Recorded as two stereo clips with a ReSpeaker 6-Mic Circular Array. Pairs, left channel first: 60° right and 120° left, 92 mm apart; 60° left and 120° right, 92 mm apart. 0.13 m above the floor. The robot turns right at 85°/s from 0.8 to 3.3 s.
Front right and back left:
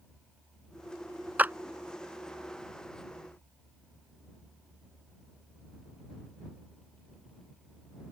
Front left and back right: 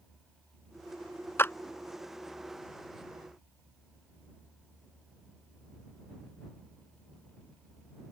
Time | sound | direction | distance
1.4 | a clap | 75° left | ?